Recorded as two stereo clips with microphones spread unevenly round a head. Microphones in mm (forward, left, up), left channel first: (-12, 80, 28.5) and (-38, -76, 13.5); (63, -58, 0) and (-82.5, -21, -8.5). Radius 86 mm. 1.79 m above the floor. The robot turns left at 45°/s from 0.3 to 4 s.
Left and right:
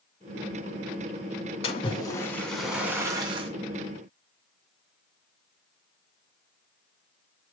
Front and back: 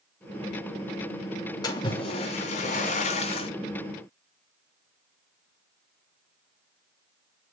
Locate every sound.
1.6 s a splash: 40° left, 2.5 m; by 3.5 s 45° right, 2.5 m